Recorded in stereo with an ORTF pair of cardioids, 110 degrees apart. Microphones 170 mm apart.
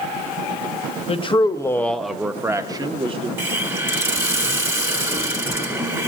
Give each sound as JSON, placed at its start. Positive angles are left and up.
{"t": 1.1, "sound": "a man speaking", "azimuth_deg": 35, "distance_m": 1.0}
{"t": 3.4, "sound": "a hiss", "azimuth_deg": -15, "distance_m": 1.7}